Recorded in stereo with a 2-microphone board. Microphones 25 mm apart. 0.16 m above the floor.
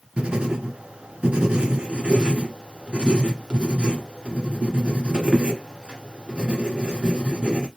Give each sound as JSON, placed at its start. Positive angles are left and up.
{"t": 0.2, "sound": "writing", "side_deg": -50, "distance_m": 1.6}